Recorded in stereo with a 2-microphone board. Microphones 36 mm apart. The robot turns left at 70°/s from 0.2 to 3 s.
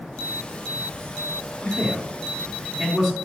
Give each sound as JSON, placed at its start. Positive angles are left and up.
{"t": 1.6, "sound": "a man speaking", "side_deg": 60, "distance_m": 3.0}